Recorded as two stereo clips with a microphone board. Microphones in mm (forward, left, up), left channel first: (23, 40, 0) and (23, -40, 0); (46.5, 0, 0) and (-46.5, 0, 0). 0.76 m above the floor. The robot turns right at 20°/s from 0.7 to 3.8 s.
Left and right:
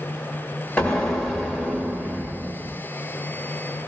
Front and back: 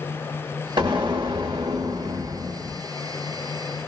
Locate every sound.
0.8 s an explosion: 165° left, 0.9 m; by 2.8 s 155° right, 0.9 m